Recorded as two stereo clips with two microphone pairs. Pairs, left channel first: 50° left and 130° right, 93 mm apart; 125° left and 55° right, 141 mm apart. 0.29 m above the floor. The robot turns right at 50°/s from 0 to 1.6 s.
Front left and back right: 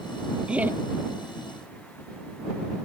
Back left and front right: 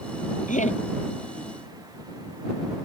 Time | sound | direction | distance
0.5 | laughter | 145° left | ?